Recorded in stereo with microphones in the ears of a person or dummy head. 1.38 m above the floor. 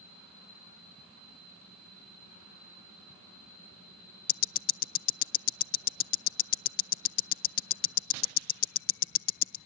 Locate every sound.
4.3 s ticking: 45° left (ahead or behind), 0.5 m